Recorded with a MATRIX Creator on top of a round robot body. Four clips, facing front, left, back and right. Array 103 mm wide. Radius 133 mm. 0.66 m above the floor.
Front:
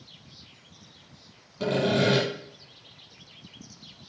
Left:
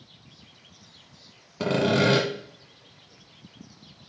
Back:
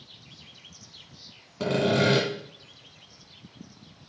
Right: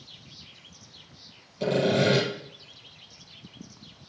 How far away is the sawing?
About 1.3 m.